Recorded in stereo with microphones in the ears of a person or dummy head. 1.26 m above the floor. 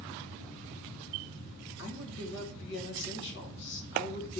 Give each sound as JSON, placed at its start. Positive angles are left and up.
{"t": 1.8, "sound": "a woman speaking", "side_deg": 60, "distance_m": 1.1}